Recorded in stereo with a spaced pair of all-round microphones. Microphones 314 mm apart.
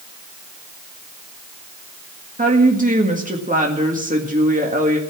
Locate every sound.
2.4 s a woman speaking: 25° right (ahead or behind), 1.9 m